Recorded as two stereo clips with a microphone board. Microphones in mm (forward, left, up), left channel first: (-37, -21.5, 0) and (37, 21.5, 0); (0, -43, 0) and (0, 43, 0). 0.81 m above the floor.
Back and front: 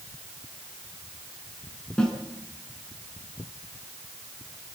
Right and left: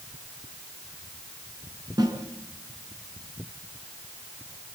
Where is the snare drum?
130° left, 5 m.